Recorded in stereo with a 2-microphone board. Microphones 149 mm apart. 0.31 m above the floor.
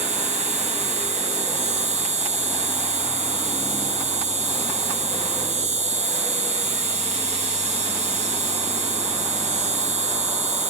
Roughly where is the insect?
Right.